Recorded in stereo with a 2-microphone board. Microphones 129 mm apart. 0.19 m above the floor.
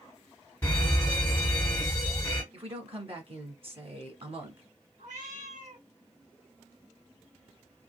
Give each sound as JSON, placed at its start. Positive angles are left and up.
{"t": 0.6, "sound": "a fire alarm", "side_deg": 15, "distance_m": 2.0}
{"t": 2.5, "sound": "a woman speaking", "side_deg": -50, "distance_m": 1.5}
{"t": 5.0, "sound": "a cat meowing", "side_deg": -85, "distance_m": 2.0}